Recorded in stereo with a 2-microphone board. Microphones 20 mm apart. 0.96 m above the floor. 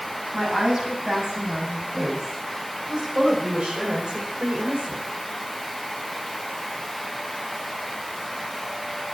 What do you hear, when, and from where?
0.3 s a woman speaking: 45° right (ahead or behind), 9 m; by 5.1 s 75° right (ahead or behind), 4.5 m